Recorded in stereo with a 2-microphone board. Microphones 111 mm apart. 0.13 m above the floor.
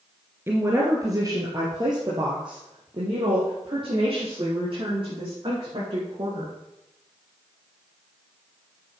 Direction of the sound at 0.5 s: 20° right (ahead or behind).